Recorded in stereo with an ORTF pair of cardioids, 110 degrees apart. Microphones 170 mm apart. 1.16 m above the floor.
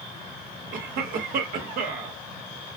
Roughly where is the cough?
Ahead right.